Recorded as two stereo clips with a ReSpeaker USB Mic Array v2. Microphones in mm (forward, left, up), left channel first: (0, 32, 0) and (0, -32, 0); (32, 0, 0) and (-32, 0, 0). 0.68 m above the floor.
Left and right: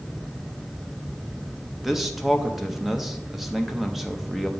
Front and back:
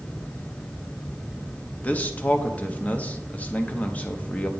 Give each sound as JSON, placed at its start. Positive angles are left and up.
{"t": 1.8, "sound": "a man speaking", "azimuth_deg": -10, "distance_m": 0.5}